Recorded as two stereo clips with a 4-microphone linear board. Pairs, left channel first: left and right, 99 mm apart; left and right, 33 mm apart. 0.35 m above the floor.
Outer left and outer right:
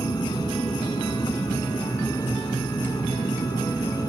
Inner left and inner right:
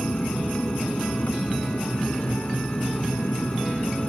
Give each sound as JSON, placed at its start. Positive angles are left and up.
{"t": 0.0, "sound": "an aircraft", "side_deg": 45}